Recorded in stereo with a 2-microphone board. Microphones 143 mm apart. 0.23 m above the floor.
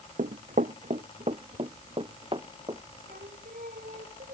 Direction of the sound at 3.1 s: 75° right (ahead or behind).